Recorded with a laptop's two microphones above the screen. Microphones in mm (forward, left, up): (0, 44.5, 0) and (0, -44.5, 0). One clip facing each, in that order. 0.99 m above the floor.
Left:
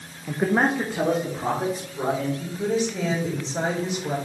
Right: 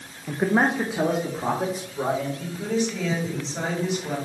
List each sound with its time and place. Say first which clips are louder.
0.3 s a man speaking: even; centre (ahead or behind), 0.7 m; by 2.3 s 10° right (ahead or behind), 3.5 m
2.4 s a woman speaking: left 1 dB; 25° left (ahead or behind), 3.5 m